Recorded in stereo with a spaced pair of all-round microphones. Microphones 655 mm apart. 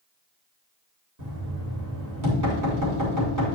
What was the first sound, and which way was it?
Knocking, 25° right (ahead or behind).